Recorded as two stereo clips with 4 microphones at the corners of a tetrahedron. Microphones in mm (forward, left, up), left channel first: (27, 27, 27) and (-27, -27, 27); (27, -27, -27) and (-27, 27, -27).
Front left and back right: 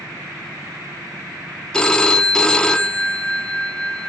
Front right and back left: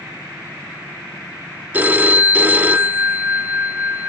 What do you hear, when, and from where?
1.7 s a phone ringing: 110° left, 0.7 m